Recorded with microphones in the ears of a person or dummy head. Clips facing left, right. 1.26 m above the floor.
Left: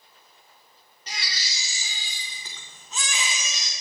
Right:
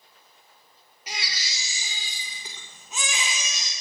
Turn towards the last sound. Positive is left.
turn(degrees=-5)  # may be behind; listen again after turning